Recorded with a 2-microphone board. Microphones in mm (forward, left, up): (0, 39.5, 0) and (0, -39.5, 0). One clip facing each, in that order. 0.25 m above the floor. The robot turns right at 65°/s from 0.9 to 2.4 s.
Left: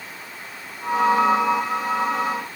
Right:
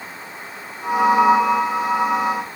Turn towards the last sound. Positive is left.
No sound to turn to.